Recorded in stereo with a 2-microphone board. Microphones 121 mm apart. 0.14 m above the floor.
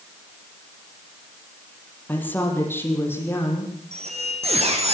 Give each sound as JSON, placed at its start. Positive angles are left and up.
{"t": 2.1, "sound": "a woman speaking", "side_deg": 15, "distance_m": 5.0}
{"t": 3.9, "sound": "a squeak", "side_deg": -60, "distance_m": 4.5}